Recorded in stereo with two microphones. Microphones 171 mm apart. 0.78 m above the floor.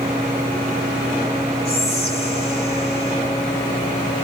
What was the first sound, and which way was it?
Whispering, 35° left (ahead or behind).